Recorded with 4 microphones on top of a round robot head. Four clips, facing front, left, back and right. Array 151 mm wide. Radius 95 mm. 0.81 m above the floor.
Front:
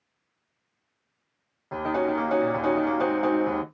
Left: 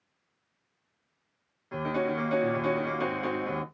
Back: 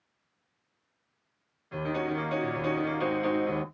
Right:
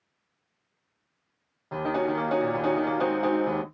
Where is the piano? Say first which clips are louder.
Right 3 dB, front 6 dB; 40° right, 1.2 m.